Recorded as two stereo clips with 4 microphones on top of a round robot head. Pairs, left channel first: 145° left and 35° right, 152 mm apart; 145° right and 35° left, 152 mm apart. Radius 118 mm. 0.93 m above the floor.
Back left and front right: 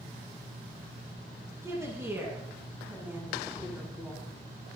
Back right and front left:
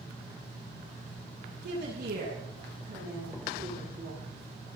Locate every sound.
1.6 s a woman speaking: 40° left, 8 m; by 4.2 s 45° left, 9 m